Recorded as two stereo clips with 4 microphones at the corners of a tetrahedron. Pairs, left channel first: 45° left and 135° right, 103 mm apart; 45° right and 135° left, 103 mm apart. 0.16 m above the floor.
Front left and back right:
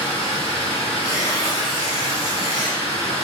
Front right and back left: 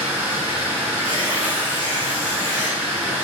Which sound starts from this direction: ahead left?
Running water, at 0.0 s.